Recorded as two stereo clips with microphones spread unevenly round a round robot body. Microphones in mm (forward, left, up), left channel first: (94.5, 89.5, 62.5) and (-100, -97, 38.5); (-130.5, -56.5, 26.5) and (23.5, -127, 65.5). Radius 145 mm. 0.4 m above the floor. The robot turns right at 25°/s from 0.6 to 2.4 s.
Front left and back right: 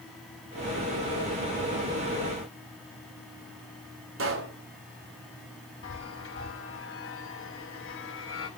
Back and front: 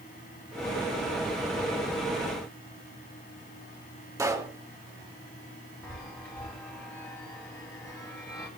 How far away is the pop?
About 5 m.